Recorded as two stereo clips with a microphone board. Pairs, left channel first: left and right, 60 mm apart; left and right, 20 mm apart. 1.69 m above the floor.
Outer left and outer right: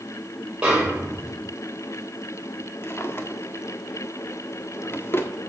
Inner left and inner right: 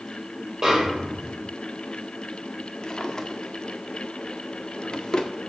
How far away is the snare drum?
About 4.5 m.